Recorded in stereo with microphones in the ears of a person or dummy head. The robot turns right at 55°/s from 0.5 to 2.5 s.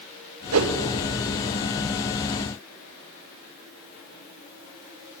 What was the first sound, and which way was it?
A whoosh, 70° right (ahead or behind).